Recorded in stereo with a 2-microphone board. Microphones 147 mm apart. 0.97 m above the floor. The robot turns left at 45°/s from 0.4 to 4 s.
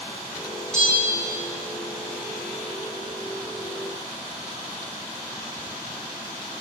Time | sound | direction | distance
0.7 | a bell | 5° left (ahead or behind) | 2.0 m